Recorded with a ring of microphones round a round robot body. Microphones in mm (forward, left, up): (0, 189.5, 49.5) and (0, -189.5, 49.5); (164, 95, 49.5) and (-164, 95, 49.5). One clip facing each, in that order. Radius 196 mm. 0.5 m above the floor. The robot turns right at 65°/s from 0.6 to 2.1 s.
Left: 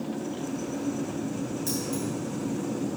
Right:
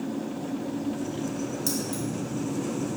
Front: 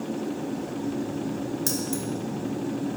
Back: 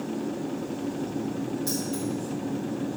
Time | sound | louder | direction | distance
1.7 | keys jangling | even, front 1 dB | 25° right | 1.5 m